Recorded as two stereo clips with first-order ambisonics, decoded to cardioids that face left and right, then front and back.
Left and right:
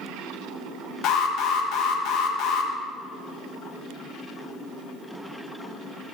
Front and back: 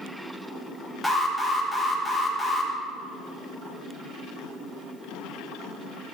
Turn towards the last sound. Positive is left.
turn(degrees=85)